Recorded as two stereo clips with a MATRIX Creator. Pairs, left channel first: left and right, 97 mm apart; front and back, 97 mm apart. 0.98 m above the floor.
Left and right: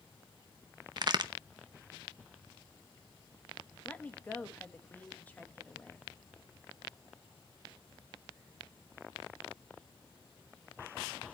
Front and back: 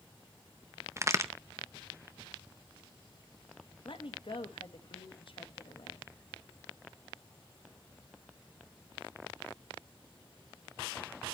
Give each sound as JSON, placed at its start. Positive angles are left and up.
{"t": 1.0, "sound": "a crack", "azimuth_deg": -125, "distance_m": 0.7}
{"t": 3.9, "sound": "a woman speaking", "azimuth_deg": 20, "distance_m": 1.4}